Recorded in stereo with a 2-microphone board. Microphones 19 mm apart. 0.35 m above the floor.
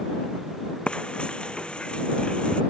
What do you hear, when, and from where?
0.9 s frying: 75° left (ahead or behind)